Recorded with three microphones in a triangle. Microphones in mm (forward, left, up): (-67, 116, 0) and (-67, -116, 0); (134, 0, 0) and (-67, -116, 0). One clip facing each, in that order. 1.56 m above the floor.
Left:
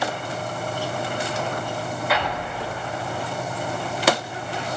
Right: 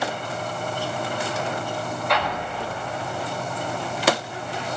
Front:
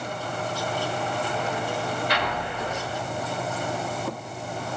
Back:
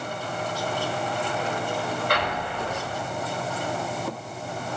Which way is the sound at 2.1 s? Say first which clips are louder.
Even, back 1 dB; 175° left.